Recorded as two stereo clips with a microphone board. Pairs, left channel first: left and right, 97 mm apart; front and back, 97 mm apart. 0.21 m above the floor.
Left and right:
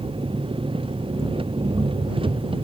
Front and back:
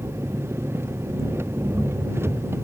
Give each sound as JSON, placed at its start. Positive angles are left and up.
{"t": 0.0, "sound": "an engine running", "azimuth_deg": -115}